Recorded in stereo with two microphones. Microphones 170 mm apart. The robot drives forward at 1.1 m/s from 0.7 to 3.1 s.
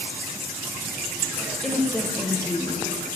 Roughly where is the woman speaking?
Centre.